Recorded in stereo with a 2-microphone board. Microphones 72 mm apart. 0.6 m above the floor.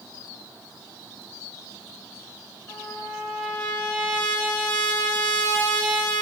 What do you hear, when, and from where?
2.7 s a trumpet: 15° left (ahead or behind), 2.0 m